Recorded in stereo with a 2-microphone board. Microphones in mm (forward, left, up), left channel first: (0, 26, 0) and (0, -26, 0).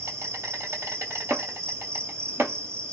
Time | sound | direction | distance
0.0 | an insect | 60° right (ahead or behind) | 1.9 m
1.3 | chopping | 55° right (ahead or behind) | 1.1 m